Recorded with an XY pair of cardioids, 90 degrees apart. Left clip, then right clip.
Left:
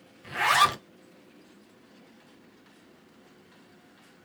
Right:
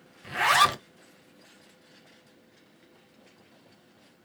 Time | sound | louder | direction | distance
0.2 | a zipper | right 1 dB | 15° right | 0.5 m